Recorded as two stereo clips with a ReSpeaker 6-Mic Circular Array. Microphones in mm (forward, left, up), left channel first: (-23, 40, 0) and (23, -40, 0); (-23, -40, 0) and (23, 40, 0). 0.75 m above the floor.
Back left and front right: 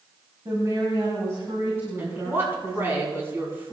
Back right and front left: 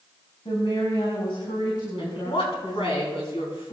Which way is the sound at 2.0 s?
125° right.